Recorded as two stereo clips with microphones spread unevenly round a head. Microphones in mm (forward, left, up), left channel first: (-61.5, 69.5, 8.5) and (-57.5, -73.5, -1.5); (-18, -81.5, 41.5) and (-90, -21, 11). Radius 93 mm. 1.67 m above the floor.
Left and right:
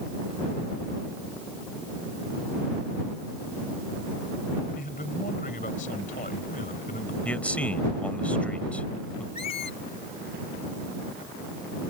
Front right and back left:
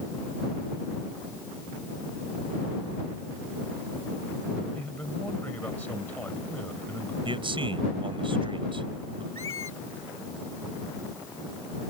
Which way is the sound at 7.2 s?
170° left.